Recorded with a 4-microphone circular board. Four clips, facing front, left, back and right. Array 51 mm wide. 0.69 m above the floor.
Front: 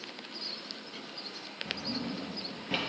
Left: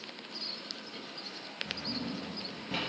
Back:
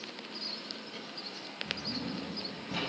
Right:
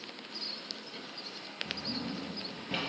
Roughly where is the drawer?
Ahead.